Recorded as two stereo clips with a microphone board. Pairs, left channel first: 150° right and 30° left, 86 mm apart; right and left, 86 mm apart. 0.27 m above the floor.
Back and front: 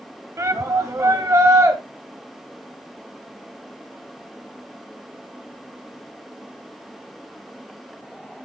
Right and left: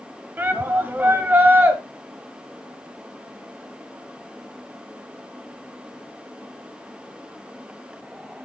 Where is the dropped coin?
No dropped coin in this recording.